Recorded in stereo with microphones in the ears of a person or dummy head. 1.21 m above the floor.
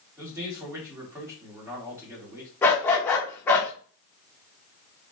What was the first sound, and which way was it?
A man speaking, 15° right (ahead or behind).